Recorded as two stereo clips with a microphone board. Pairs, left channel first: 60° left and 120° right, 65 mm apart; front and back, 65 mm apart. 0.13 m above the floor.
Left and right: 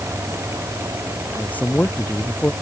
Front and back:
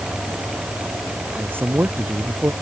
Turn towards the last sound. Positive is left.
turn(degrees=125)